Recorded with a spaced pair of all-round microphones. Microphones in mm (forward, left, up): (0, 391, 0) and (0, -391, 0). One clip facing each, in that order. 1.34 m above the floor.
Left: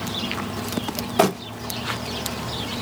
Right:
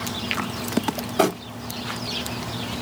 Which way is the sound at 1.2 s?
35° left (ahead or behind).